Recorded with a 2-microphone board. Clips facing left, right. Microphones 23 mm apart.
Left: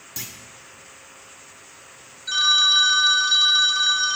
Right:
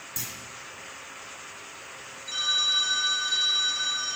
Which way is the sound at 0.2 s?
35° left (ahead or behind).